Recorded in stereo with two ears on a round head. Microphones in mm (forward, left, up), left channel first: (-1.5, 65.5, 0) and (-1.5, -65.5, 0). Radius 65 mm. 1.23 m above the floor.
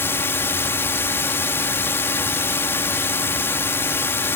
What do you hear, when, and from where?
0.0 s a drone: 15° left (ahead or behind)